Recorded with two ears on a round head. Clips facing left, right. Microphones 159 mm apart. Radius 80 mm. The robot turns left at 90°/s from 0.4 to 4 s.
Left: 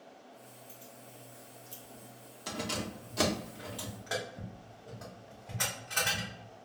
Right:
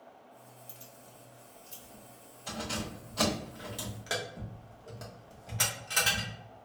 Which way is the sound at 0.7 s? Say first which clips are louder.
Left 2 dB; 75° right (ahead or behind).